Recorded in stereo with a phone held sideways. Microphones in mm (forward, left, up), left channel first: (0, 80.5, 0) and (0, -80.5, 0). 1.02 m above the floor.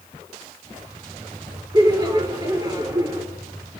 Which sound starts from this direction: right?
Laughter, at 1.7 s.